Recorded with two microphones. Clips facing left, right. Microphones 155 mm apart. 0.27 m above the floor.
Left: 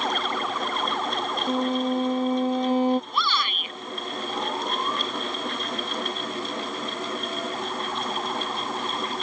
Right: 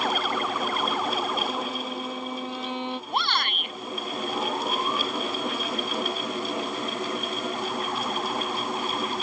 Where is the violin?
40° left (ahead or behind).